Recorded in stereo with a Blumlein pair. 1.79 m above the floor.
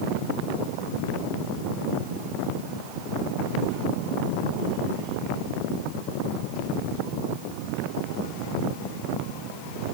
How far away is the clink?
No clink in this recording.